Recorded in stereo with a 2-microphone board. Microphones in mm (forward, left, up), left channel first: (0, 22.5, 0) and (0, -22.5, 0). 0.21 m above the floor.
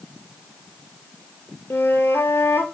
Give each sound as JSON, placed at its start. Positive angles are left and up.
{"t": 1.7, "sound": "a flute", "side_deg": 70, "distance_m": 0.6}